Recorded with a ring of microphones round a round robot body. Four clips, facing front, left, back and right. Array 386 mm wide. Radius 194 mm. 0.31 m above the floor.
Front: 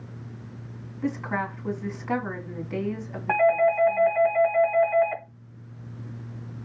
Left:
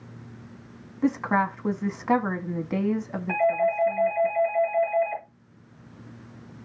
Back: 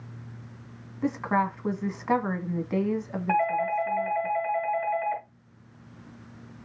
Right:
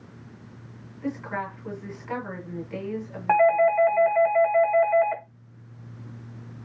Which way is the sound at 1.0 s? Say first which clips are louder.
Left 8 dB, back 3 dB; 110° left.